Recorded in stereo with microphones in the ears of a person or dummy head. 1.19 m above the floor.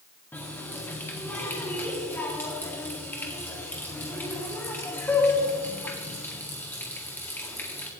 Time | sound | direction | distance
0.3 | a running tap | 15° left (ahead or behind) | 1.8 m